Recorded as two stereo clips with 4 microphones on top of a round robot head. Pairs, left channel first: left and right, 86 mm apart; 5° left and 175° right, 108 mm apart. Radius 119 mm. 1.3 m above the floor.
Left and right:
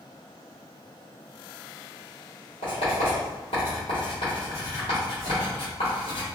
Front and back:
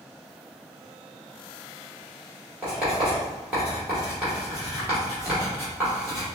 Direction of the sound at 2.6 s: 110° left.